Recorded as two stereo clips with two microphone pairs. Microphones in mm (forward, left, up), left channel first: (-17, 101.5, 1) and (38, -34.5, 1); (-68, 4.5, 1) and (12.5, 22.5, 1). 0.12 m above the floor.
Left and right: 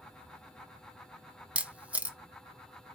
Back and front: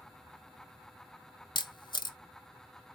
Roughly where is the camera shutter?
Behind right.